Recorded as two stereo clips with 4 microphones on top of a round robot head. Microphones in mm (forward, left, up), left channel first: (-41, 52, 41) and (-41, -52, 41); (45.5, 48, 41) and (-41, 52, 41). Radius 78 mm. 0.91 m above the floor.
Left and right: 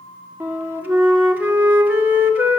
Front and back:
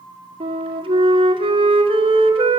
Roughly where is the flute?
Behind.